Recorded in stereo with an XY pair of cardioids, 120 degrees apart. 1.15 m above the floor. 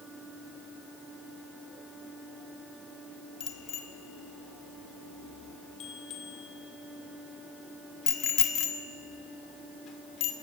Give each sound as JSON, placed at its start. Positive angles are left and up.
{"t": 3.4, "sound": "a bicycle bell", "azimuth_deg": 60, "distance_m": 2.5}